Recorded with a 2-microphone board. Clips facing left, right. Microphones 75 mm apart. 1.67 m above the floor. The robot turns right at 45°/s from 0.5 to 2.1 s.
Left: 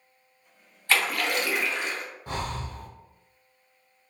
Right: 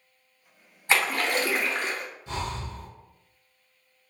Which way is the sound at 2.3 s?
50° left (ahead or behind).